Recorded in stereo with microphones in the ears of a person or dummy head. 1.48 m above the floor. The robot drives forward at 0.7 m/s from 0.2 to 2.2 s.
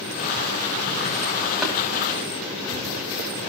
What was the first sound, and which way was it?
Tapping, centre (ahead or behind).